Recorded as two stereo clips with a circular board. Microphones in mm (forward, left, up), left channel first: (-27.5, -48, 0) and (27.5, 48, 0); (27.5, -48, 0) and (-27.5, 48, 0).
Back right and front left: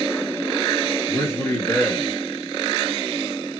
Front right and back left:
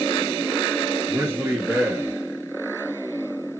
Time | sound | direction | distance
1.1 | a man speaking | straight behind | 1.7 m